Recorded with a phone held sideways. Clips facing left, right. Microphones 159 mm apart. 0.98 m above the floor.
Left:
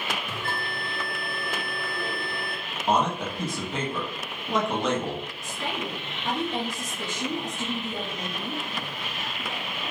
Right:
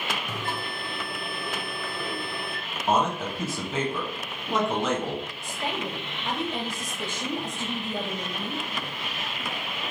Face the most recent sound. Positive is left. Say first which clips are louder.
# even
turn(degrees=40)  # may be behind; listen again after turning